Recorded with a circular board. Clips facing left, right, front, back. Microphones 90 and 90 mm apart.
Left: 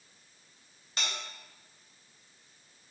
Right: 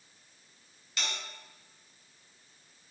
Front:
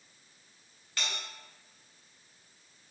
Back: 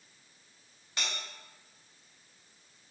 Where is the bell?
120° left, 0.9 m.